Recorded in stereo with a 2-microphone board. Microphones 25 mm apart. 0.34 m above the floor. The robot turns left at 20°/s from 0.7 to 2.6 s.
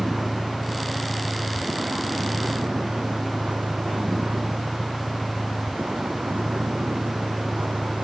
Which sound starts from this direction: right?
A vehicle, at 0.0 s.